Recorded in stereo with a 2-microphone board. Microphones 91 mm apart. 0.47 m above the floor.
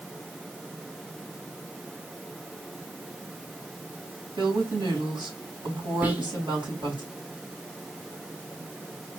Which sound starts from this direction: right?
A woman speaking, at 4.4 s.